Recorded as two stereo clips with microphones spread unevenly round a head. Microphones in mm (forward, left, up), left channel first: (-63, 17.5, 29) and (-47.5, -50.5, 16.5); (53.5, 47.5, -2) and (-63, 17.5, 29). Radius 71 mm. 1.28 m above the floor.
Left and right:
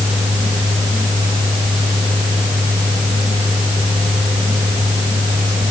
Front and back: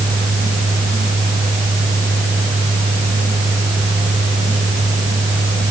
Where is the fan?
55° right, 7 m.